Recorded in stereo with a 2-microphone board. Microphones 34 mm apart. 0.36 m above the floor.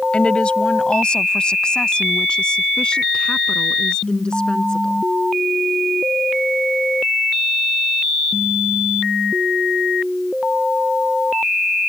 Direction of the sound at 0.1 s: 30° left (ahead or behind).